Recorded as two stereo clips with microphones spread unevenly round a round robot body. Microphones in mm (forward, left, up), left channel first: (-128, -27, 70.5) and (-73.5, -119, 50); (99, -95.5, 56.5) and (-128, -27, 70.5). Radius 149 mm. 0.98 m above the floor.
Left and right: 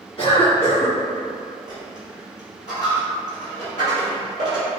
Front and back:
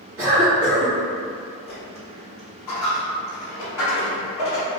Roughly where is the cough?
Behind left.